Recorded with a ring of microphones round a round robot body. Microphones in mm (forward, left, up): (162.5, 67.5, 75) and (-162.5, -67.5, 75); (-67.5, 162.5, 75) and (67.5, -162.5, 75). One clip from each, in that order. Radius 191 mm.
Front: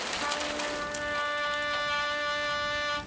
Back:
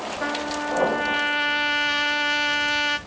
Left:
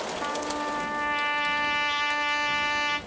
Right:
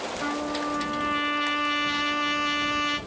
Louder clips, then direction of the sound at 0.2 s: Back 7 dB, right 2 dB; 155° right.